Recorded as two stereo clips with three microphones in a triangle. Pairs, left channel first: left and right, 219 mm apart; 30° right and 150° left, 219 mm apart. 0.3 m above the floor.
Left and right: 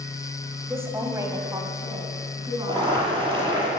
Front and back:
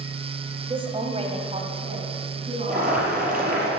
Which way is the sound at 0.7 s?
160° right.